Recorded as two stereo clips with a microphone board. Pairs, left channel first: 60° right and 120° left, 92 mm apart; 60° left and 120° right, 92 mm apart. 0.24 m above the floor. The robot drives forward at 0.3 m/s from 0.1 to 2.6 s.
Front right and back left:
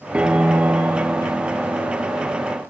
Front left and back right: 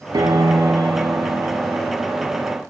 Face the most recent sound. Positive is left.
turn(degrees=-170)